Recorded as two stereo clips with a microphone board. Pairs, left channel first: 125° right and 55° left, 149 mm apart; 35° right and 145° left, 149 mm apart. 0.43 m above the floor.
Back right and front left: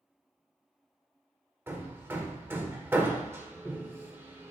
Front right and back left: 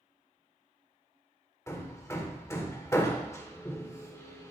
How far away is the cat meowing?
I don't hear a cat meowing.